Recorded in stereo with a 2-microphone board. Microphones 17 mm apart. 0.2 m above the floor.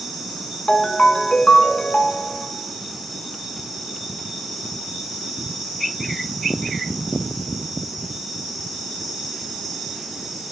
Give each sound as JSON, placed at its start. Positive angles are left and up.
{"t": 0.7, "sound": "a ringtone", "side_deg": 60, "distance_m": 0.6}